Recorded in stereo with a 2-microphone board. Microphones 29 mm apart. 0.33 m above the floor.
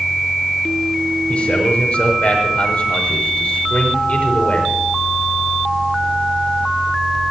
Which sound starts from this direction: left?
A man speaking, at 1.3 s.